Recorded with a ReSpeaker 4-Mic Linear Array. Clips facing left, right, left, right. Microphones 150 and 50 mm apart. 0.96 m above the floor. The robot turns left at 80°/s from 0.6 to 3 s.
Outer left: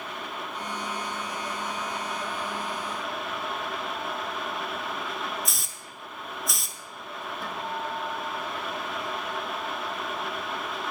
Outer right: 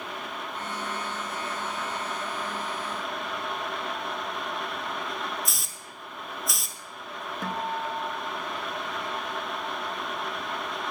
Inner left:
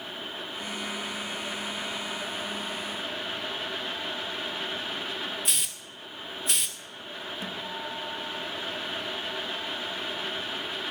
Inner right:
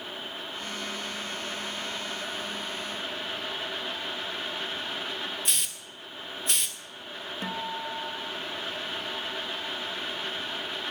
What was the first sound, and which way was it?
A hiss, centre (ahead or behind).